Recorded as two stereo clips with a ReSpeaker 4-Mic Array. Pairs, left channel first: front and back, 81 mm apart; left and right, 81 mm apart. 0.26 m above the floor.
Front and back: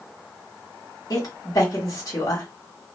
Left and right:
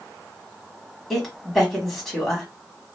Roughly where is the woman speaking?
Ahead.